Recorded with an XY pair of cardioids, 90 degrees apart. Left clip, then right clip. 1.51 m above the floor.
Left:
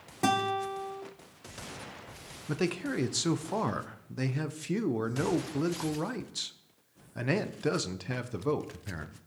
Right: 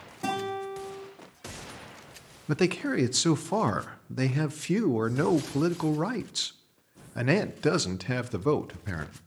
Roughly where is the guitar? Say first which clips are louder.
Left 3 dB; ahead left.